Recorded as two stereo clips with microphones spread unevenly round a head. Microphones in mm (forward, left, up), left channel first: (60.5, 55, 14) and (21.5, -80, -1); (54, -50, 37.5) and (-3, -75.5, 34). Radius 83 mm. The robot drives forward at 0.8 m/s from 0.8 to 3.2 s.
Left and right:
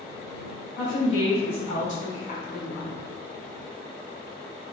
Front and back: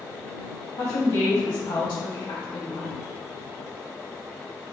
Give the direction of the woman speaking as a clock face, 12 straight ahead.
11 o'clock.